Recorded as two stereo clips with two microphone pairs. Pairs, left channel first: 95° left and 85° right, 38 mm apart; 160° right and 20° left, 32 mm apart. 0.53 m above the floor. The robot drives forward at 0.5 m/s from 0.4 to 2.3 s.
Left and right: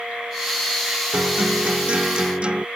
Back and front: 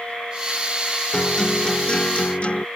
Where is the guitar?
95° right; by 2.6 s 130° right.